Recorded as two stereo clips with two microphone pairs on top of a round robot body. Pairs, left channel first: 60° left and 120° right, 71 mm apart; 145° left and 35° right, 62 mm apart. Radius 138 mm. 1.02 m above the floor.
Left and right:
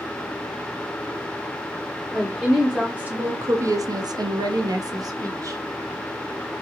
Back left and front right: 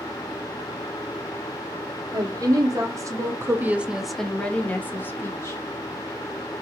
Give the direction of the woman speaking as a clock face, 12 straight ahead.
1 o'clock.